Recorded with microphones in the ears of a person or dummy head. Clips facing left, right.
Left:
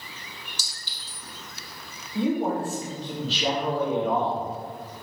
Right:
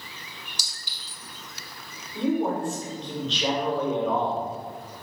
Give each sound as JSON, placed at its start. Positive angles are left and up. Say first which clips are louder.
{"t": 0.6, "sound": "a clink", "louder": "even", "side_deg": -15, "distance_m": 1.5}
{"t": 2.1, "sound": "a man speaking", "louder": "even", "side_deg": 5, "distance_m": 1.1}